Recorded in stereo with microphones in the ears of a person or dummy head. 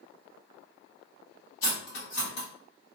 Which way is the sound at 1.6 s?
75° left (ahead or behind).